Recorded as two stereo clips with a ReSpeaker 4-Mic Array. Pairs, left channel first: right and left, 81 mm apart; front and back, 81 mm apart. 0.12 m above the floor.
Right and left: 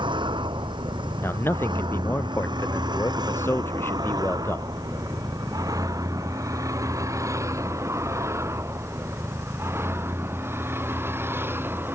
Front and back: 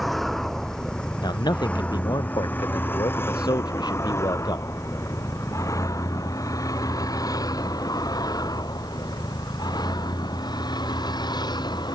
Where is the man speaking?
30° right.